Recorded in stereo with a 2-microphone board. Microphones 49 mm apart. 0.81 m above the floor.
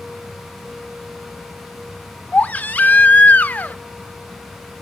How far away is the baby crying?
About 0.8 m.